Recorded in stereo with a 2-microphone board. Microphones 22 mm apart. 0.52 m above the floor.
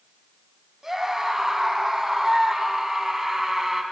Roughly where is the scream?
Centre.